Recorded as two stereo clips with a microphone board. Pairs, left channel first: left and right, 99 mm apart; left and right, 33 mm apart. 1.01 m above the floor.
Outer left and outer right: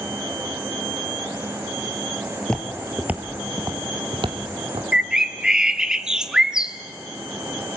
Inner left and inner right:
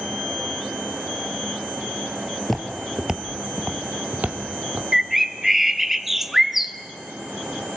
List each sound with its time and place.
2.4 s footsteps: 10° left (ahead or behind), 1.3 m; by 4.8 s 60° right (ahead or behind), 2 m
4.9 s a bird: 5° right (ahead or behind), 0.7 m